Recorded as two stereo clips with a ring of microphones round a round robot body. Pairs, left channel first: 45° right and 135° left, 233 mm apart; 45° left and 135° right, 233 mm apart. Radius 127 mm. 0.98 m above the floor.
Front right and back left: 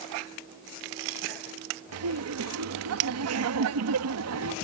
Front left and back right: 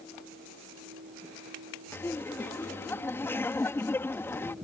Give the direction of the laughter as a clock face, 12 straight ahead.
8 o'clock.